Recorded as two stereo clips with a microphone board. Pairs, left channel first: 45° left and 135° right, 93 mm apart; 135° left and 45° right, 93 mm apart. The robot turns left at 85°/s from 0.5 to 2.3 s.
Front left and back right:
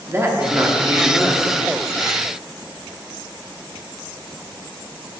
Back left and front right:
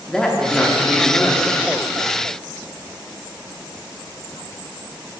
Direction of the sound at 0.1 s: 150° right.